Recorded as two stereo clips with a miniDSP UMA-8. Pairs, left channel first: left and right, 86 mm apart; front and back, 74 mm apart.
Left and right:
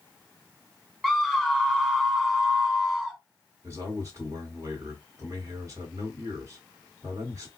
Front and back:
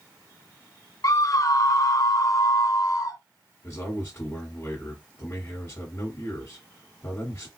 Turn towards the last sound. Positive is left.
turn(degrees=-55)